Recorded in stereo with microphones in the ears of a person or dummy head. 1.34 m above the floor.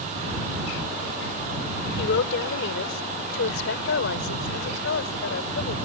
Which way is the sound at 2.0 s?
70° left (ahead or behind).